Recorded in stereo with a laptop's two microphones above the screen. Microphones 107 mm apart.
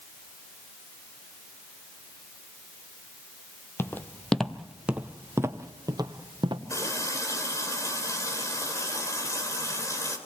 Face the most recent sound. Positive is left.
turn(degrees=30)  # may be behind; listen again after turning